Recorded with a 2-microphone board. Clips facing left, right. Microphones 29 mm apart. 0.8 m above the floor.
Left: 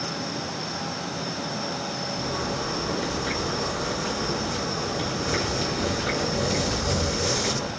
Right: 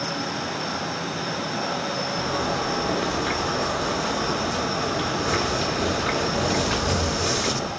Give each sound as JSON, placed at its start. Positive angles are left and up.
{"t": 2.2, "sound": "a zipper", "side_deg": -30, "distance_m": 2.5}